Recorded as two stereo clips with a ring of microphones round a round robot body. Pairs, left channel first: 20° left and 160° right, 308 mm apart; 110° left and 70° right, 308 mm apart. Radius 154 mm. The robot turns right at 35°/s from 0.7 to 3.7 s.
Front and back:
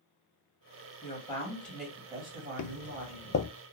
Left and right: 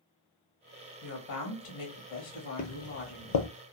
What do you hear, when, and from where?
1.0 s a woman speaking: 85° left, 1.4 m; by 3.4 s 170° left, 1.4 m
2.6 s footsteps: 55° left, 0.6 m; by 3.5 s 85° left, 0.6 m